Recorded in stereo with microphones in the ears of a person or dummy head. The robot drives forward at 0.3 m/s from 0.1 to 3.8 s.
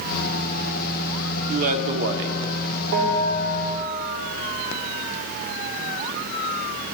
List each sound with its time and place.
1.5 s a man speaking: 45° right (ahead or behind), 0.7 m; by 2.4 s 65° right (ahead or behind), 0.6 m
2.9 s a bell: 70° right (ahead or behind), 2 m; by 3.7 s 65° right (ahead or behind), 2 m